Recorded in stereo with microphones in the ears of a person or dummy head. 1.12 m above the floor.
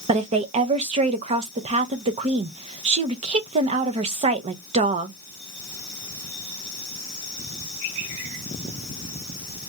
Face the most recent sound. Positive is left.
turn(degrees=-40)  # may be behind; listen again after turning